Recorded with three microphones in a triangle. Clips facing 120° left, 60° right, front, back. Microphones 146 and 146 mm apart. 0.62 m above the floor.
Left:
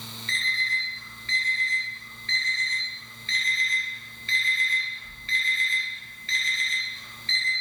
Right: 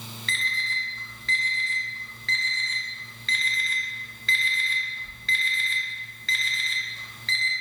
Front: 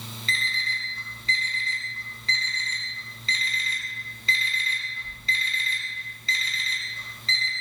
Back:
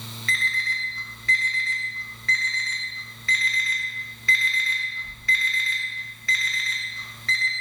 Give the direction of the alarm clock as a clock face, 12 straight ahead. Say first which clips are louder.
Even, back 3 dB; 2 o'clock.